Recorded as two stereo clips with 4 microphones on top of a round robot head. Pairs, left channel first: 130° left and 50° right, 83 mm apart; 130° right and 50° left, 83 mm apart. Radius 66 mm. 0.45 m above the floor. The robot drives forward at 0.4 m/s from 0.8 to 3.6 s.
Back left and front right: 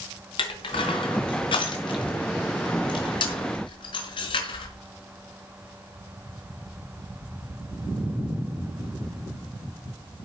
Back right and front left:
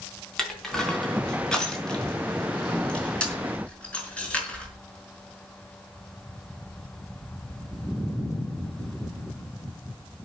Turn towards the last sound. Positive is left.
turn(degrees=155)